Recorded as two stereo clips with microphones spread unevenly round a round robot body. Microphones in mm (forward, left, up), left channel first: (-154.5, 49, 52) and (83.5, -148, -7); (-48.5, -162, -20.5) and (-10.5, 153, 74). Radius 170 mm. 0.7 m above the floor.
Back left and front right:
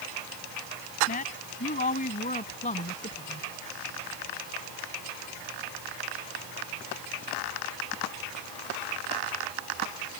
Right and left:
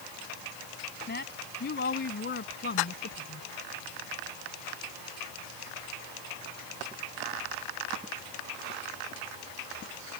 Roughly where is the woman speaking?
Behind right.